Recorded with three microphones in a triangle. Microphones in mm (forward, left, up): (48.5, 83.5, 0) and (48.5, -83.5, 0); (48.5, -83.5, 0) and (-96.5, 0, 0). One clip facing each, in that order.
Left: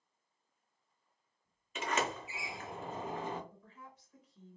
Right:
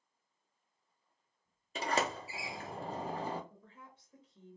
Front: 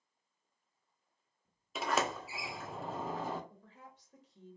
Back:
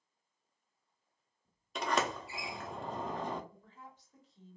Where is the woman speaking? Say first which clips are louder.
Left 1 dB, back 1 dB; 30° right, 1.2 m.